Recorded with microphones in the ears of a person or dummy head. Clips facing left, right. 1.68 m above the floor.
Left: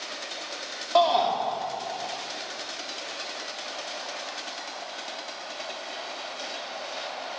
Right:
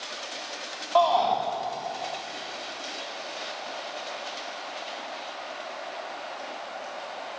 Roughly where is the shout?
Left.